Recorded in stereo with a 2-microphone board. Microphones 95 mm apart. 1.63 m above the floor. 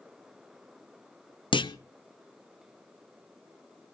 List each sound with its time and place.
1.5 s a clunk: 65° left (ahead or behind), 0.6 m